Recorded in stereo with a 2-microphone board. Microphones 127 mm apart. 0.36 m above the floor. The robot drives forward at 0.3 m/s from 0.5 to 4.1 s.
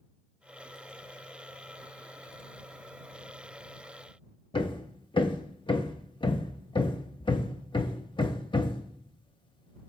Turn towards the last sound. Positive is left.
turn(degrees=40)  # may be behind; listen again after turning